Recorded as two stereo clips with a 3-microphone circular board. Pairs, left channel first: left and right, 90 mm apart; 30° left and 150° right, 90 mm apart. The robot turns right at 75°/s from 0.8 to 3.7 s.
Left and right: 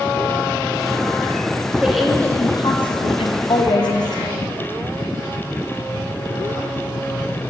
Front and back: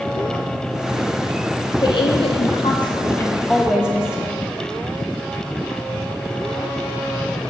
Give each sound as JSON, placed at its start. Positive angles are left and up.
{"t": 1.8, "sound": "a woman speaking", "azimuth_deg": -15, "distance_m": 0.6}